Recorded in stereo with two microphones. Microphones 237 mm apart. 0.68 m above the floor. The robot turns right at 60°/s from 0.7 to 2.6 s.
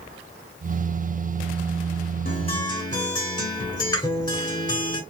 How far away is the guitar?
About 2 m.